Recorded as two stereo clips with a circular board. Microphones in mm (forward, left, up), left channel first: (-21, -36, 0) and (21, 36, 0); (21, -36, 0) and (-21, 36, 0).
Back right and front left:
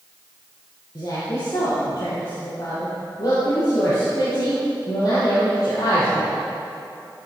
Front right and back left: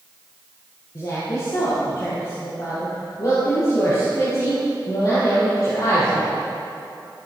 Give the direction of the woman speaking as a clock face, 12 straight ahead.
3 o'clock.